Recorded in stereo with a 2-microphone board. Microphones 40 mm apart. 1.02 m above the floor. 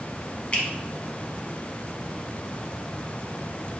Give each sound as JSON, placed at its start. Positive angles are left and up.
{"t": 0.5, "sound": "a finger snap", "side_deg": 25, "distance_m": 0.9}